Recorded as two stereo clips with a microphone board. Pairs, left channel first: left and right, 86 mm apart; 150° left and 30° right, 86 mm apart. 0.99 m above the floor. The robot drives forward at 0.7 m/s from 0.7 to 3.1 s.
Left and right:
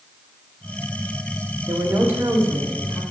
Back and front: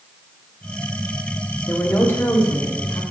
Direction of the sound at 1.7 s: 140° right.